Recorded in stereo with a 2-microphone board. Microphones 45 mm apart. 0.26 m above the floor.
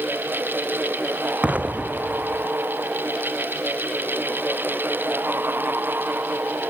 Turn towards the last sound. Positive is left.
turn(degrees=-30)  # may be behind; listen again after turning